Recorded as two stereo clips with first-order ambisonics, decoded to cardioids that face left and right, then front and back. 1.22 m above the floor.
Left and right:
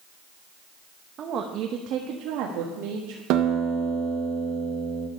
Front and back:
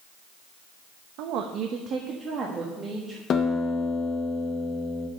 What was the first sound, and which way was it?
A woman speaking, 150° right.